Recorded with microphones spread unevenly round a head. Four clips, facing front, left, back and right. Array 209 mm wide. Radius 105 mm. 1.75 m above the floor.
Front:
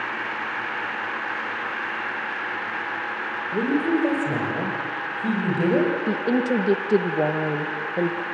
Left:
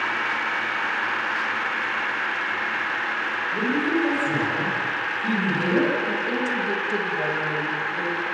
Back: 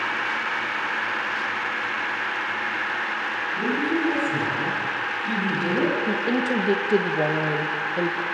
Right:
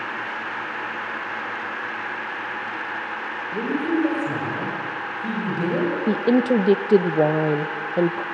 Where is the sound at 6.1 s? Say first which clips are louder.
Right 7 dB, front 2 dB; 85° right, 1.3 m.